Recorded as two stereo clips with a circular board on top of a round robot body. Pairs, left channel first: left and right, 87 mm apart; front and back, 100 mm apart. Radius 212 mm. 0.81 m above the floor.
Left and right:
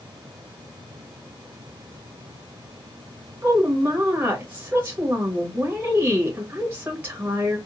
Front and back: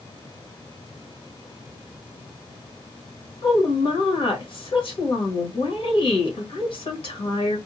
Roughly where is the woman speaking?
Ahead.